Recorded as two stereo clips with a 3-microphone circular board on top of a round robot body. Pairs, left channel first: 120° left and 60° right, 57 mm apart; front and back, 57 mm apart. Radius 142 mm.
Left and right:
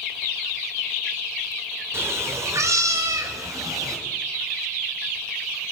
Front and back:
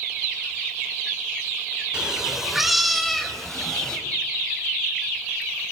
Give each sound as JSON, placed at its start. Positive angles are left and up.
{"t": 1.9, "sound": "a cat meowing", "azimuth_deg": -105, "distance_m": 2.0}